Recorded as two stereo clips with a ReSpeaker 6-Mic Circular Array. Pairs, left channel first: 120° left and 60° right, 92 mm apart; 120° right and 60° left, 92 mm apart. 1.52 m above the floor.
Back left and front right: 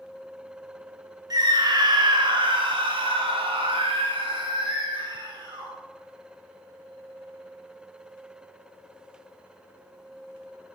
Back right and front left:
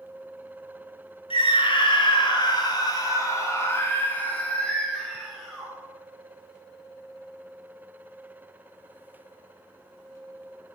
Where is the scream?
100° right, 3 m; by 5.7 s 30° right, 4 m.